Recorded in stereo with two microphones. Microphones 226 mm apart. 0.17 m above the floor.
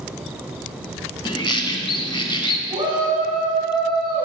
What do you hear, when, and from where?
1.2 s a bird: 20° left (ahead or behind), 0.5 m
2.7 s a shout: 20° right (ahead or behind), 1.6 m